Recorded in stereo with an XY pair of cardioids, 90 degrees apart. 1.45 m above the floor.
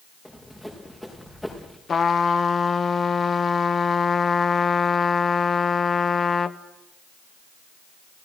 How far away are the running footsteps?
About 6.5 m.